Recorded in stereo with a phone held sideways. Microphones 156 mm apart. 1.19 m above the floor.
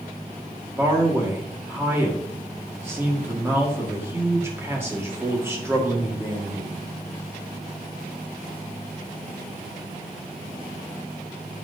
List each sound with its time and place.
0.8 s a man speaking: 15° right (ahead or behind), 1.9 m